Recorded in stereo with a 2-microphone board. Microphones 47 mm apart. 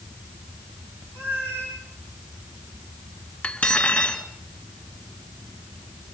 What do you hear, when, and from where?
1.1 s a cat meowing: 55° right (ahead or behind), 9.5 m
3.4 s cutlery clinking: 30° left (ahead or behind), 2 m